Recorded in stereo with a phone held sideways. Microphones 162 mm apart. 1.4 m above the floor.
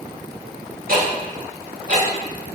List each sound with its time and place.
0.9 s ticking: 65° right (ahead or behind), 3.5 m